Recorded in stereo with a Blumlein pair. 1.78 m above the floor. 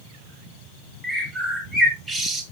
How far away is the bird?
About 1.6 m.